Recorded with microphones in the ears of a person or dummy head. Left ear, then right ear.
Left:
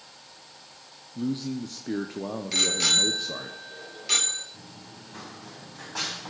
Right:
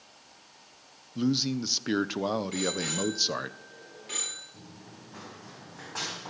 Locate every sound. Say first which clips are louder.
1.1 s a man speaking: right 4 dB; 55° right (ahead or behind), 0.9 m
2.5 s a bicycle bell: left 9 dB; 40° left (ahead or behind), 3.5 m
4.5 s running footsteps: left 4 dB; 10° left (ahead or behind), 4.5 m; by 6.3 s 5° right (ahead or behind), 5 m